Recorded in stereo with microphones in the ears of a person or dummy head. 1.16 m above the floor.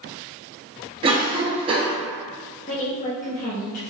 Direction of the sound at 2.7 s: 35° left (ahead or behind).